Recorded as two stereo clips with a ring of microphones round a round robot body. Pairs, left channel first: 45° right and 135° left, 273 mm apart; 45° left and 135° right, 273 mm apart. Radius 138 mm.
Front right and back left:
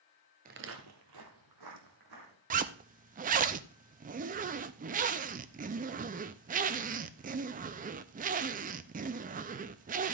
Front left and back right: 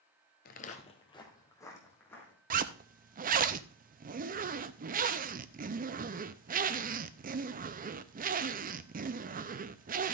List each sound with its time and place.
0.5 s footsteps: 90° left, 0.9 m; by 2.4 s 130° left, 3.5 m
2.5 s a zipper: straight behind, 0.5 m